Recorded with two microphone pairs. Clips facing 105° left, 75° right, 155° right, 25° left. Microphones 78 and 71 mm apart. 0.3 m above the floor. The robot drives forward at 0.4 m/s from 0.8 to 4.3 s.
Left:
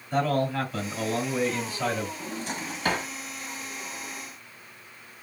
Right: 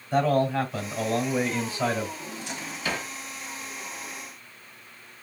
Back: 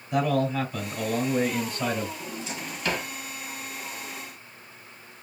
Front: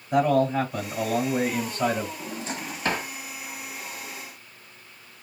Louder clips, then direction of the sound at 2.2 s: Left 3 dB, front 2 dB; 60° left.